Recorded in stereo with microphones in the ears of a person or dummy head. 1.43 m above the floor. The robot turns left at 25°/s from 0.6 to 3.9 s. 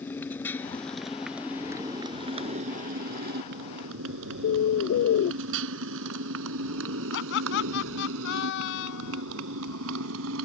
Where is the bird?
50° left (ahead or behind).